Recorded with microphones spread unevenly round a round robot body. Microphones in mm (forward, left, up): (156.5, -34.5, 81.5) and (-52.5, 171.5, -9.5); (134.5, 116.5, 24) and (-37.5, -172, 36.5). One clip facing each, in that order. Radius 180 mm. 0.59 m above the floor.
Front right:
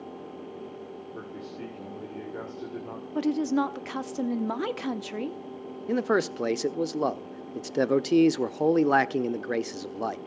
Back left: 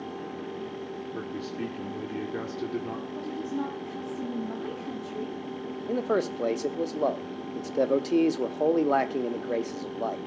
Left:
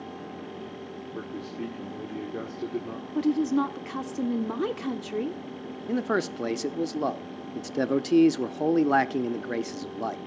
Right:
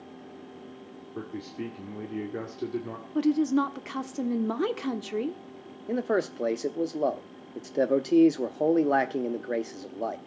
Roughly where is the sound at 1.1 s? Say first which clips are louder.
Back left 6 dB, even; behind left.